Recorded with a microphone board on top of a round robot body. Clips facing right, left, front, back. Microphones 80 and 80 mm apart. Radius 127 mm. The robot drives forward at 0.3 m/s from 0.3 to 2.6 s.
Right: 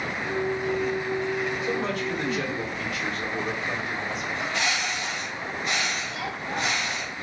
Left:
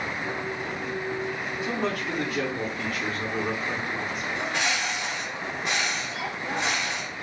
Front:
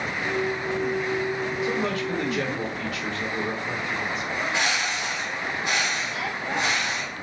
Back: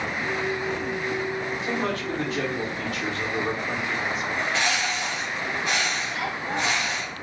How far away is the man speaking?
About 2.5 m.